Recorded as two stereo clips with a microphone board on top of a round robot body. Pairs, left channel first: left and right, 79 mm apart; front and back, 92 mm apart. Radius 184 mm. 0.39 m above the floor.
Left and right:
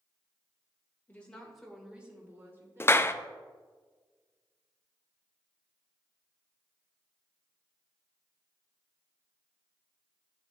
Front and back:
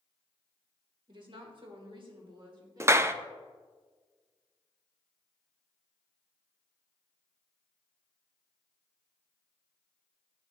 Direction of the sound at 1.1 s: 160° left.